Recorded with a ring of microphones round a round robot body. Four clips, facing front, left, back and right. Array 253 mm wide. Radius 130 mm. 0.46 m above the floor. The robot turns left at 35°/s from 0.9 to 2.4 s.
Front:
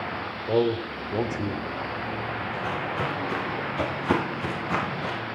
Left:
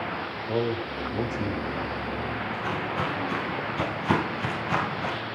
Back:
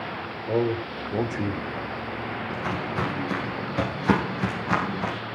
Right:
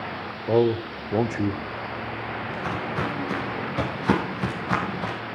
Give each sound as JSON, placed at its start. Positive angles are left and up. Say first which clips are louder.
{"t": 0.5, "sound": "a man speaking", "louder": "right 7 dB, front 1 dB", "azimuth_deg": -80, "distance_m": 1.7}
{"t": 2.5, "sound": "footsteps", "louder": "right 1 dB, back 2 dB", "azimuth_deg": -135, "distance_m": 10.0}